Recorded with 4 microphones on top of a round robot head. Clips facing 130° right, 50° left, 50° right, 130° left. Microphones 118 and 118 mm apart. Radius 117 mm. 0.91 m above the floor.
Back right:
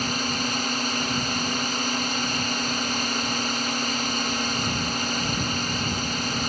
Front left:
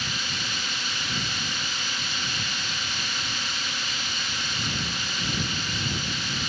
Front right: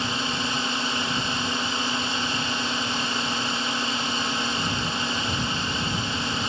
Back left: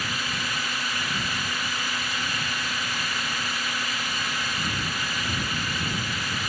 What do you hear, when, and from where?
0.0 s a drone: 105° right